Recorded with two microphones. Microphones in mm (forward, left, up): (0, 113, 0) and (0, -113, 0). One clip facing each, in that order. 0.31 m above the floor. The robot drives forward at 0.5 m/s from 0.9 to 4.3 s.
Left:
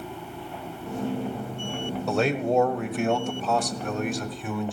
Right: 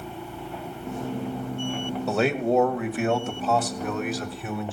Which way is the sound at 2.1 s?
Centre (ahead or behind).